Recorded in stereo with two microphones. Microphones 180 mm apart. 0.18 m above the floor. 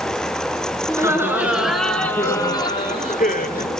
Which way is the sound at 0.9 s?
20° right (ahead or behind).